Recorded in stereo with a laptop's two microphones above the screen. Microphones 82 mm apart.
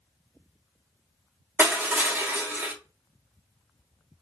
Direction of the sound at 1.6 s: 25° right (ahead or behind).